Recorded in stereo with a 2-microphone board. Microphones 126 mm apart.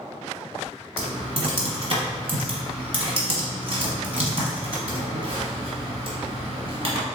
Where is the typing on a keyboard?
50° right (ahead or behind), 1.1 m.